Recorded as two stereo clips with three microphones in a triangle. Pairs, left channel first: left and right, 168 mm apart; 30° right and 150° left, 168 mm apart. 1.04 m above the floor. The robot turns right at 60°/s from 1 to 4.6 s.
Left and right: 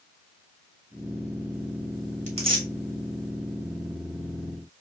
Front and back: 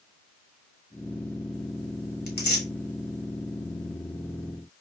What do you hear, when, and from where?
2.3 s tearing paper: 45° right, 1.3 m; by 2.7 s 20° right, 1.3 m